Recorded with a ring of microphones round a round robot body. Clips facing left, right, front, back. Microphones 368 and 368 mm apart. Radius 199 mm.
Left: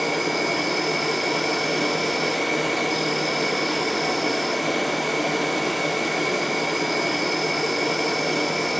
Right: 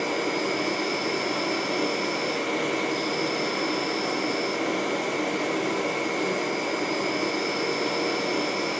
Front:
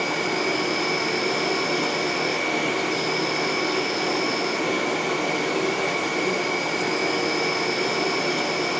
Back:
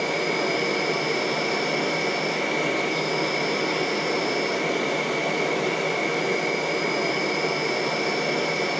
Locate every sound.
0.0 s an insect: 105° left, 1.6 m